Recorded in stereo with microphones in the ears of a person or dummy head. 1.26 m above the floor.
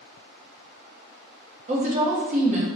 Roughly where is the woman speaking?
Right.